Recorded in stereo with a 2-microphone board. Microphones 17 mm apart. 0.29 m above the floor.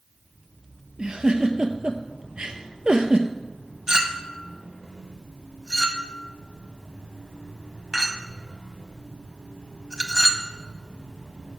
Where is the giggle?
70° right (ahead or behind), 0.8 m.